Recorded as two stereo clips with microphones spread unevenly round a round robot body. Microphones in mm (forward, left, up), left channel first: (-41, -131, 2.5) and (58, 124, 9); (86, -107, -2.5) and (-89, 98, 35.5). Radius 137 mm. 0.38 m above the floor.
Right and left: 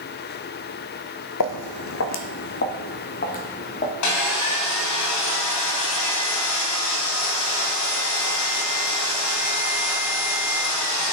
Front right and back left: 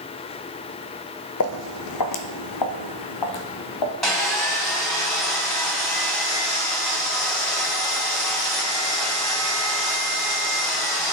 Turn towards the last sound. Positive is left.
turn(degrees=-135)